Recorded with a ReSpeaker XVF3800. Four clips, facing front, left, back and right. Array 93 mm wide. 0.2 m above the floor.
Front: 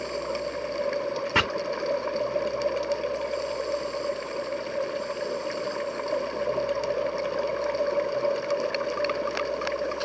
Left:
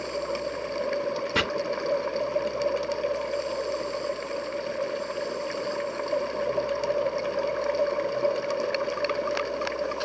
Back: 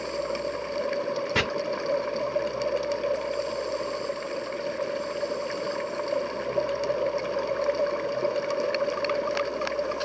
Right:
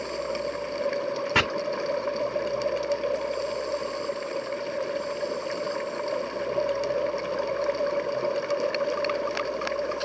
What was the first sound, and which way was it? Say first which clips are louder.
Chopping: right 3 dB, front 3 dB; 50° right.